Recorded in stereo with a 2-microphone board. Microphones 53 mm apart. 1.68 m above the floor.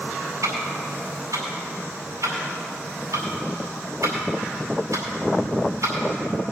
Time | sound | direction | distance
0.4 | ticking | 70° right (ahead or behind) | 4.5 m